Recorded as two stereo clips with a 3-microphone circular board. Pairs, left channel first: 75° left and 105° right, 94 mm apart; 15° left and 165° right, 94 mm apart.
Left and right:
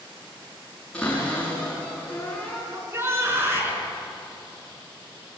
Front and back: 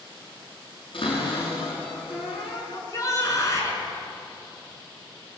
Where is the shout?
40° right, 6 m.